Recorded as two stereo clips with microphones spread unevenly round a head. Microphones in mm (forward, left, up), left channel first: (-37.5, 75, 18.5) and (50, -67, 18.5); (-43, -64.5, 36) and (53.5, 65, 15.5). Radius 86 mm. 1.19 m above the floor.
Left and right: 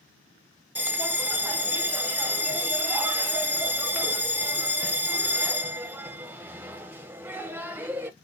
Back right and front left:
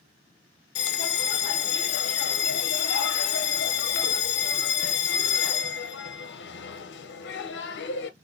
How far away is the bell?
About 0.7 m.